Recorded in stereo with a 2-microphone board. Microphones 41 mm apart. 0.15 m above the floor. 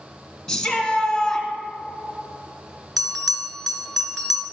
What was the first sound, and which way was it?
A shout, 10° left (ahead or behind).